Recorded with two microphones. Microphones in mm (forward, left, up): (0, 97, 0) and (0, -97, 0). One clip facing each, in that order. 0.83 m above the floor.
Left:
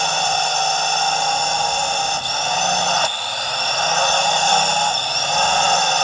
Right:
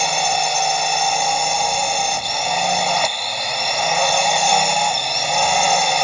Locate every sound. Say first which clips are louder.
0.0 s a drone: right 1 dB; 10° right (ahead or behind)